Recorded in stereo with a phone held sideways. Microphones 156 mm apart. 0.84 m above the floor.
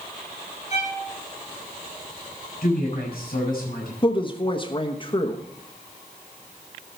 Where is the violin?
45° left (ahead or behind), 8 m.